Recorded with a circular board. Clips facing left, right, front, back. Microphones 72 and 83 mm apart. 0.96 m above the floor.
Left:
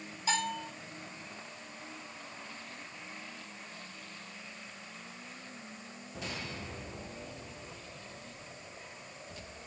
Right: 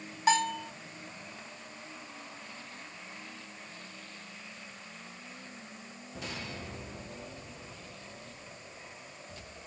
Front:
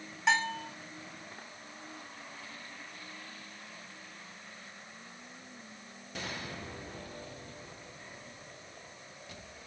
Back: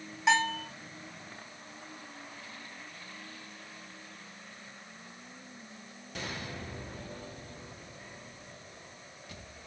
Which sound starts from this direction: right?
A bell, at 0.3 s.